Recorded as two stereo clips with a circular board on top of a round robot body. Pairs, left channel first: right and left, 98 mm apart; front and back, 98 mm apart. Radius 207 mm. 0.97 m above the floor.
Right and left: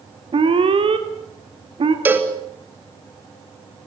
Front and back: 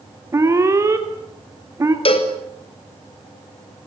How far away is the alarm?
About 3.5 m.